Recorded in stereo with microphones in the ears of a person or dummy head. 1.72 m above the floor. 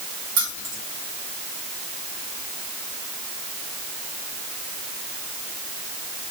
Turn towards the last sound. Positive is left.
turn(degrees=-60)  # may be behind; listen again after turning